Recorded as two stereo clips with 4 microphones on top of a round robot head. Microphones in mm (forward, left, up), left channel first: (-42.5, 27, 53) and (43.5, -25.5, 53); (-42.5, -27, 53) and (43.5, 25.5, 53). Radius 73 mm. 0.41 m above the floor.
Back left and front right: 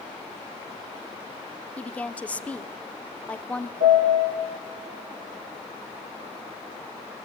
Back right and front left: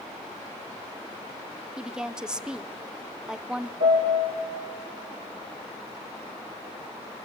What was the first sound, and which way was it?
A woman speaking, 100° left.